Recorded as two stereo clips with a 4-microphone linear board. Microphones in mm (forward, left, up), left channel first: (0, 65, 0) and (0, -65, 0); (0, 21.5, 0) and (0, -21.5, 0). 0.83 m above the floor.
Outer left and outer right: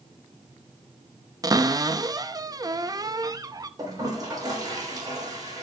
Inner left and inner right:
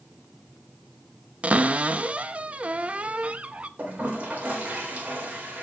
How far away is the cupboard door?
About 0.7 m.